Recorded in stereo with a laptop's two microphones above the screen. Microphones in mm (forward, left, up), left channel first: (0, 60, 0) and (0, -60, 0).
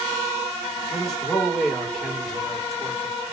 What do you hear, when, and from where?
0.9 s a man speaking: centre (ahead or behind), 7 m